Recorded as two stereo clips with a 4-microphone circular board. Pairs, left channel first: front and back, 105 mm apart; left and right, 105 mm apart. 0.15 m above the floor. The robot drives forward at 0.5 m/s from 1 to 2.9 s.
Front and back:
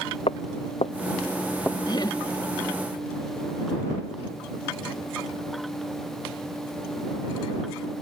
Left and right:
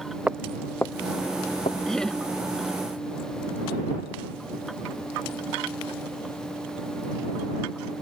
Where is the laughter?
10° left.